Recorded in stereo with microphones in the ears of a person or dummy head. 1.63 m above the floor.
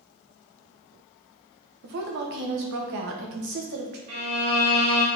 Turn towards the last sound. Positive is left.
turn(degrees=-35)  # may be behind; listen again after turning